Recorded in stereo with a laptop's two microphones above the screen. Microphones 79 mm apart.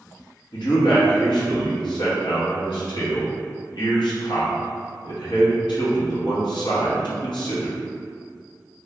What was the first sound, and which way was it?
A man speaking, 75° left (ahead or behind).